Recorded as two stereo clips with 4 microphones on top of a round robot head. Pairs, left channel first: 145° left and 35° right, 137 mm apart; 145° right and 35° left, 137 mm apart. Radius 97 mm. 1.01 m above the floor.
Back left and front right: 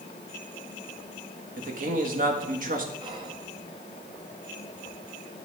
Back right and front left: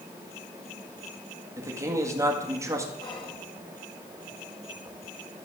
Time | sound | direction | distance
1.6 | a man speaking | 35° right | 1.7 m
3.0 | whispering | 90° right | 1.9 m